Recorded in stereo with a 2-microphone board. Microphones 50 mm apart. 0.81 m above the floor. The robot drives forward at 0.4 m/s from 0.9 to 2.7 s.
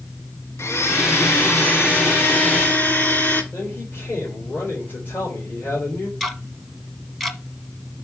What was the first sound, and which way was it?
A blender, 60° left (ahead or behind).